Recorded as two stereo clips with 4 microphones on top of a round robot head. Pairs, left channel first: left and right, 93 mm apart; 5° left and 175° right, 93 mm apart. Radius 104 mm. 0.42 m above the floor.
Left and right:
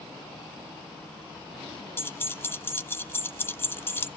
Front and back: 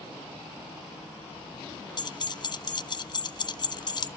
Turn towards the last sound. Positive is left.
turn(degrees=30)